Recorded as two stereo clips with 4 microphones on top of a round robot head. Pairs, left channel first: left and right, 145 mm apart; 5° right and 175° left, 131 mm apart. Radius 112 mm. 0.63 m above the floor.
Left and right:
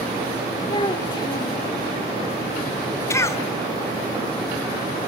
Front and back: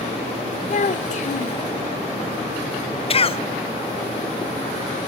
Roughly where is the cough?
Ahead left.